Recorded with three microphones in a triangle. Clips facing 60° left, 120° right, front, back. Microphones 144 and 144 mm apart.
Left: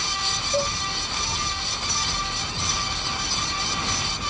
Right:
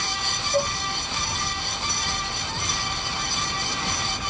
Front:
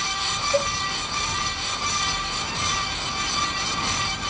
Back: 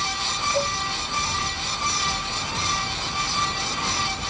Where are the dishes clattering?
Straight ahead, 6 m.